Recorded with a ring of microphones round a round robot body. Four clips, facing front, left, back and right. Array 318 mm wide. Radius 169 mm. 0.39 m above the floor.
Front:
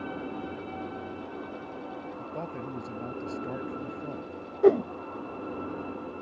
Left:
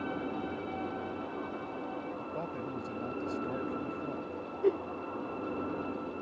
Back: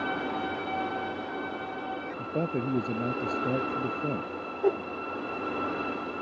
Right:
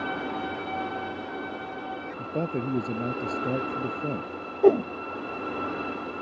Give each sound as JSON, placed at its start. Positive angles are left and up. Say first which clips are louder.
{"t": 2.2, "sound": "a man speaking", "louder": "right 8 dB, back 9 dB", "azimuth_deg": -135}
{"t": 4.6, "sound": "a whoosh", "louder": "right 11 dB, front 7 dB", "azimuth_deg": -60}